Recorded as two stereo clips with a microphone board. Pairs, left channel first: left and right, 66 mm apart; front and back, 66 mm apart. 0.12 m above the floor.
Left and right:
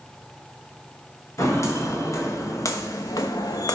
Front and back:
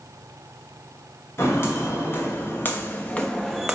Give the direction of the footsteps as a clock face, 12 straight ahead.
10 o'clock.